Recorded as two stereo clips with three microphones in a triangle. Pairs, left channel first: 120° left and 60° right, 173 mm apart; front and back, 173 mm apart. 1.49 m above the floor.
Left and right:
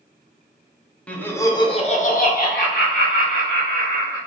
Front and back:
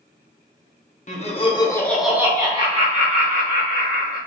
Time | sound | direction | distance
1.1 | laughter | 35° left | 0.7 m